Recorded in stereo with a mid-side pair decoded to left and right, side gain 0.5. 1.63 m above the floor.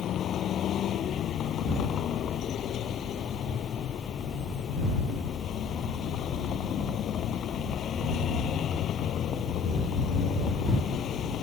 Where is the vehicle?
60° left.